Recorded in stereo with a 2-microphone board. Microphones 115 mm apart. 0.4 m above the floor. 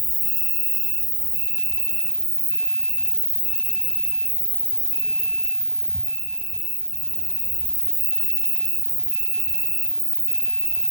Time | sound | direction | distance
0.0 | an insect | 45° right (ahead or behind) | 1.6 m